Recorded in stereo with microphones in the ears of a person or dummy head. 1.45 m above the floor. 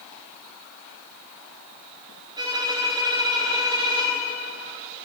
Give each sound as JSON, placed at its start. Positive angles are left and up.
{"t": 2.4, "sound": "a violin", "side_deg": -25, "distance_m": 3.0}